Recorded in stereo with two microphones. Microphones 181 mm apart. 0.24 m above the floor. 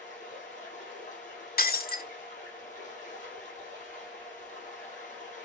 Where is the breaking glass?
55° left (ahead or behind), 0.9 m.